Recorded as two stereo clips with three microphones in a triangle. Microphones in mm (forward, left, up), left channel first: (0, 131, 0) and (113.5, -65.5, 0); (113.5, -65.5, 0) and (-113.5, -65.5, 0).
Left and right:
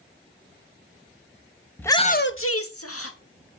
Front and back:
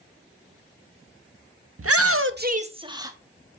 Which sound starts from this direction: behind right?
A shout, at 1.8 s.